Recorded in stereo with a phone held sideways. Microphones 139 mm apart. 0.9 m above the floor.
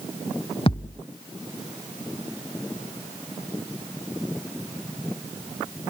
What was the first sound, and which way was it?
A thud, 45° left (ahead or behind).